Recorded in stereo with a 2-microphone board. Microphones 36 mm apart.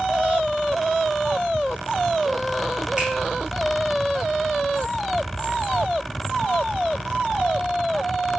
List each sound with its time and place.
3.0 s a finger snap: 35° right (ahead or behind), 1.9 m